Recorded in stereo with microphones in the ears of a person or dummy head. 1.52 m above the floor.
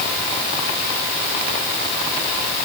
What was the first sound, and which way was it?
Only background noise.